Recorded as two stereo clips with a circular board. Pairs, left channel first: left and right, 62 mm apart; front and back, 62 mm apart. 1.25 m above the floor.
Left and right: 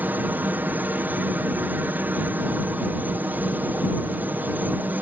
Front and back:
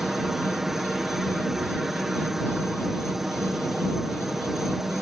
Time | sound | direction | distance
0.0 | a helicopter | 100° right | ?